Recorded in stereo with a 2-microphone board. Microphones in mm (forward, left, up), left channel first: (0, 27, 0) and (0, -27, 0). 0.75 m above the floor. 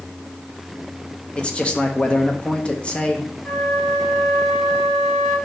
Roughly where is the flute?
Left.